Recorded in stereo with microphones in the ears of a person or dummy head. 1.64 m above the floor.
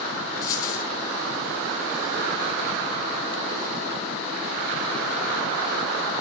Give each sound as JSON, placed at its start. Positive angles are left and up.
{"t": 0.4, "sound": "a dropped coin", "side_deg": 20, "distance_m": 2.5}